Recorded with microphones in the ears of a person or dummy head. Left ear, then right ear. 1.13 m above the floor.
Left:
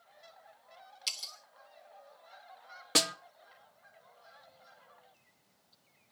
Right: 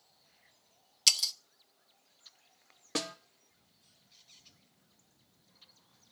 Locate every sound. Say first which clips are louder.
1.1 s breaking glass: right 11 dB; 30° right (ahead or behind), 0.6 m
3.0 s a snare drum: left 8 dB; 25° left (ahead or behind), 0.6 m